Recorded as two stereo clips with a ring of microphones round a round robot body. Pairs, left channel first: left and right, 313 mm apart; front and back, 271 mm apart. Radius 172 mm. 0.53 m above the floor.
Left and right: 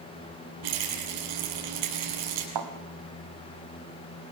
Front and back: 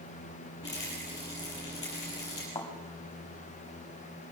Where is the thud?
80° right, 2 m.